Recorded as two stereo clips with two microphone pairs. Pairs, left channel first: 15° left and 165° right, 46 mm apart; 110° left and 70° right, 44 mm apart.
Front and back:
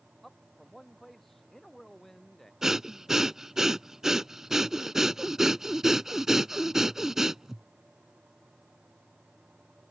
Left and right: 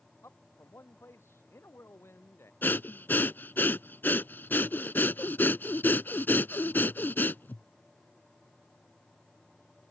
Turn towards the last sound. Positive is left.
turn(degrees=120)